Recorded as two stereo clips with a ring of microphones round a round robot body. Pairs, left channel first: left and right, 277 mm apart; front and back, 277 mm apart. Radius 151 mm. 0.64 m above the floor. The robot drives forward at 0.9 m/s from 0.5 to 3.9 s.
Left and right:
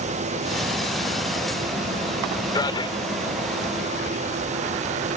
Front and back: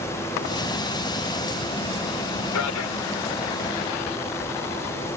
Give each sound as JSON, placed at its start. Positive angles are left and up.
{"t": 2.5, "sound": "a man speaking", "azimuth_deg": 15}